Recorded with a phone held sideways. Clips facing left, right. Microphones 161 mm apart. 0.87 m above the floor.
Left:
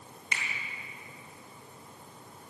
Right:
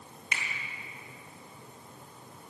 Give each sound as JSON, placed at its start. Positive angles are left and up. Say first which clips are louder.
{"t": 0.3, "sound": "a finger snap", "louder": "even", "side_deg": -65, "distance_m": 1.9}